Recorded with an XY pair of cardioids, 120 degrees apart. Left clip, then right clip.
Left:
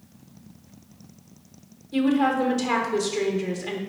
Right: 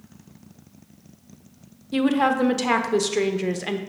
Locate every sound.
1.9 s a woman speaking: 45° right, 0.8 m